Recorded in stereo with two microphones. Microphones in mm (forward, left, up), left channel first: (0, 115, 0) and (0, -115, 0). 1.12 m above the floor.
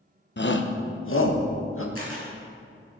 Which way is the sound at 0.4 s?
50° left (ahead or behind).